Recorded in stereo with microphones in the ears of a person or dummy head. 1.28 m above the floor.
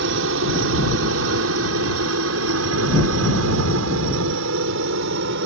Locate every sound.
0.0 s a helicopter: 65° right (ahead or behind)